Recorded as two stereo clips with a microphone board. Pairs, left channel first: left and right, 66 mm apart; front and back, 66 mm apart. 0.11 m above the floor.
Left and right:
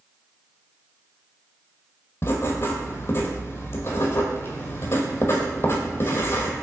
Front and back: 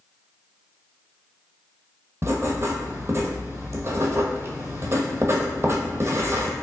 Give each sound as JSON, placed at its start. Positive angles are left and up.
{"t": 2.2, "sound": "writing", "azimuth_deg": 135, "distance_m": 0.7}